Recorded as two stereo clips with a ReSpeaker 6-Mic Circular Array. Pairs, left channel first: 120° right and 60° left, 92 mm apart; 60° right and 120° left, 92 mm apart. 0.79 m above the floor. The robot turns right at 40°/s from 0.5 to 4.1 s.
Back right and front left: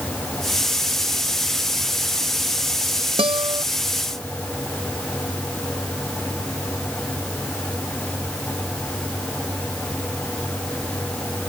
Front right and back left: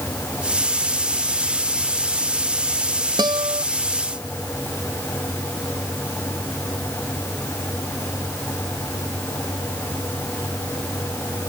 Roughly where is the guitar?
Left.